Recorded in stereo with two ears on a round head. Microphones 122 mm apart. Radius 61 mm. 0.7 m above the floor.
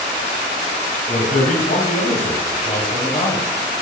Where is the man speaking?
55° left (ahead or behind), 3.5 m; by 3.5 s 35° left (ahead or behind), 3 m.